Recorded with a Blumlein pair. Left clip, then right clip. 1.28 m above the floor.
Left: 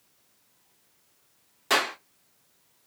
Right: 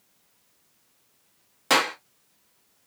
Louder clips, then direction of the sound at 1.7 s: Right 3 dB; 20° right.